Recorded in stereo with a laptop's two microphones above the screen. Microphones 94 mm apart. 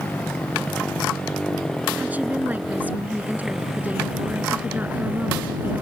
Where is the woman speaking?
15° right (ahead or behind).